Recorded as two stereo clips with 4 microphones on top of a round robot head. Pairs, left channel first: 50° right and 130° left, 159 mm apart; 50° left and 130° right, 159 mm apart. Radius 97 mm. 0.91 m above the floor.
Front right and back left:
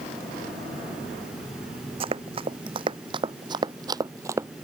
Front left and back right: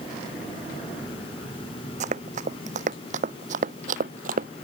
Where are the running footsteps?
175° right; by 4.5 s 160° right.